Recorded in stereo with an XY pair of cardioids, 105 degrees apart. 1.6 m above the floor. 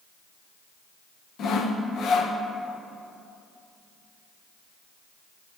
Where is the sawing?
65° left, 1.0 m.